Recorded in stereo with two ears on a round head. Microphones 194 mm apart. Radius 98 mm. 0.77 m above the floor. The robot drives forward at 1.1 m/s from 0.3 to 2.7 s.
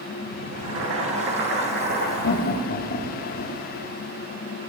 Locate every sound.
0.5 s boiling: 75° right (ahead or behind), 2.5 m; by 2.1 s 50° right (ahead or behind), 3.5 m
2.2 s laughter: 60° left (ahead or behind), 1.2 m; by 3.6 s 45° left (ahead or behind), 1.4 m